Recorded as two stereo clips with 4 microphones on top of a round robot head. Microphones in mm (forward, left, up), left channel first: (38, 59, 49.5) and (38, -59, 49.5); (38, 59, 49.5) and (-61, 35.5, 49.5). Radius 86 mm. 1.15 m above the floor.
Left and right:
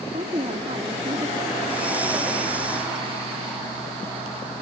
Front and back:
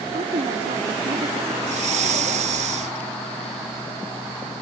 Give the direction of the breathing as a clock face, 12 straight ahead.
6 o'clock.